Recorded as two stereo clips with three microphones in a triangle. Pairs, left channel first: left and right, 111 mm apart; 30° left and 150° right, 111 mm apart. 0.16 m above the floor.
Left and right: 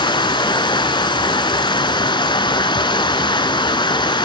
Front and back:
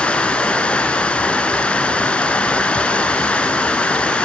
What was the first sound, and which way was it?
Running water, 105° left.